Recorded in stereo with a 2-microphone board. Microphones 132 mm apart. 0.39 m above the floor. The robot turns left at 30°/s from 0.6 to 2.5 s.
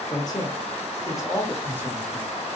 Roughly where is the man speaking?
Ahead left.